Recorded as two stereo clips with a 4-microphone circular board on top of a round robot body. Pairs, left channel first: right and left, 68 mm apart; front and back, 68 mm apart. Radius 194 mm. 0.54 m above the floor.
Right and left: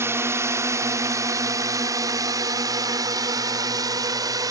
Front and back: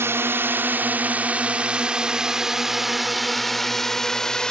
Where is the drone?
135° left; by 4.5 s 80° left.